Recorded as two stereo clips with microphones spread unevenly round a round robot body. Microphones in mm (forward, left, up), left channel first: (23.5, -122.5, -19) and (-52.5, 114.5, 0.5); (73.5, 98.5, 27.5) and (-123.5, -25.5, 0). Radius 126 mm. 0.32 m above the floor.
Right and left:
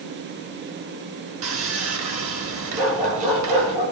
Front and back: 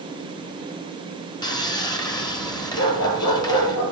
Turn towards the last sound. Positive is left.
turn(degrees=45)